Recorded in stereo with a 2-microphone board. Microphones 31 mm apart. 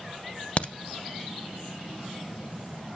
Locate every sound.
0.6 s a crack: 40° left (ahead or behind), 0.6 m